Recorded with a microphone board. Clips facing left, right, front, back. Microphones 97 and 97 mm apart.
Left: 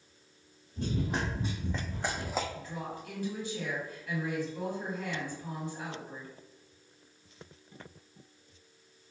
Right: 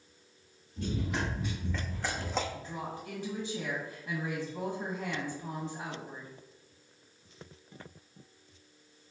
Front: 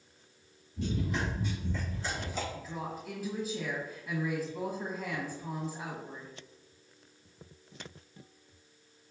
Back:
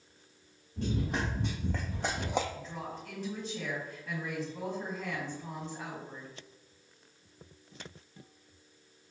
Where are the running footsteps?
145° left, 1.5 m; by 2.4 s straight behind, 0.5 m.